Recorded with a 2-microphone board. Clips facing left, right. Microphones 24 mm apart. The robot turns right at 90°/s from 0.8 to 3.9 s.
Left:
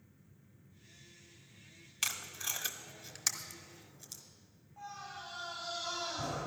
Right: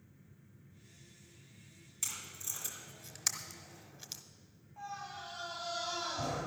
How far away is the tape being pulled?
About 1.0 m.